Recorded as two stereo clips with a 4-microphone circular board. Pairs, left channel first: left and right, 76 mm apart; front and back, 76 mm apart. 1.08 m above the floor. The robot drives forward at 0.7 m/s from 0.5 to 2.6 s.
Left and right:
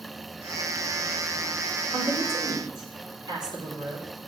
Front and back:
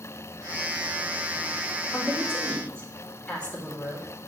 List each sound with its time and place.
1.9 s a woman speaking: 70° right, 4 m; by 4.0 s 75° right, 4 m